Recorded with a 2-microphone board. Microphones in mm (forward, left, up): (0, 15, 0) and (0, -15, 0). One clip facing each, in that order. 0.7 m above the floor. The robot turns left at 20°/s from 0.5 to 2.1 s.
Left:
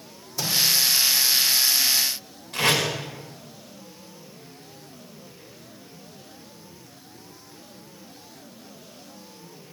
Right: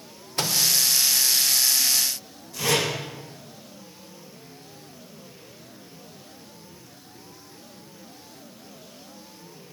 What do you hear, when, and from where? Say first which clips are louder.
0.4 s a microwave: even; 50° right (ahead or behind), 1.9 m; by 0.6 s 55° right (ahead or behind), 1.9 m
2.5 s tape being pulled: left 2 dB; 60° left (ahead or behind), 6 m